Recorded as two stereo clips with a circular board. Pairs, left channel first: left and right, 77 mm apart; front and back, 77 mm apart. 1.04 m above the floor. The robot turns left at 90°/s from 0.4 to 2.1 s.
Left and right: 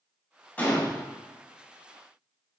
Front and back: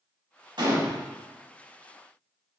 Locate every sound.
0.6 s a gunshot: 155° left, 1.7 m; by 1.0 s 115° left, 1.7 m